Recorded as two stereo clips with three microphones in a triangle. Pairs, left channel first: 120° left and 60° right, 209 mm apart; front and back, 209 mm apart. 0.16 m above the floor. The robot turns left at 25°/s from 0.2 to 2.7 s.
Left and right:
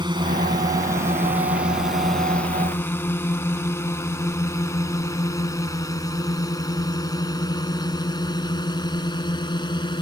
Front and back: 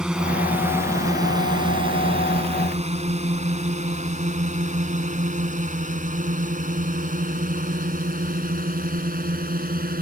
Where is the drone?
100° right; by 10.0 s straight behind.